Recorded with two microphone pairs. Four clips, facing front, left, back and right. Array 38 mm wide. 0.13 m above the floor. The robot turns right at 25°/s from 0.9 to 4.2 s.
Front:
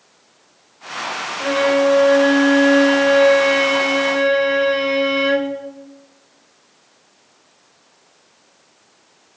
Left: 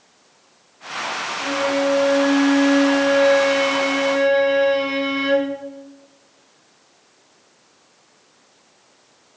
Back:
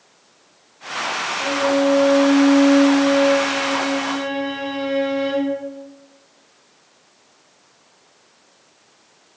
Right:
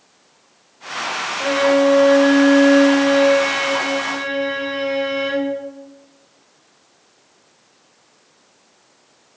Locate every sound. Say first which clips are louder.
1.4 s a violin: right 6 dB, front 3 dB; 50° right, 4 m; by 5.5 s 20° left, 4 m